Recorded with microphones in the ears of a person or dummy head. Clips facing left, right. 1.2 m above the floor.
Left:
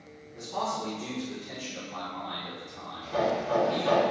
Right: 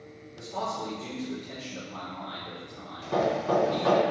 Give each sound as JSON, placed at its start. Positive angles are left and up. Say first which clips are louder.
{"t": 0.3, "sound": "a man speaking", "louder": "left 1 dB", "side_deg": 55, "distance_m": 1.4}
{"t": 3.0, "sound": "hammering", "louder": "right 2 dB", "side_deg": -75, "distance_m": 0.6}